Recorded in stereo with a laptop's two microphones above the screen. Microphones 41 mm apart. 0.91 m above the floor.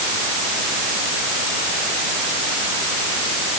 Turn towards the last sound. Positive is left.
No sound to turn to.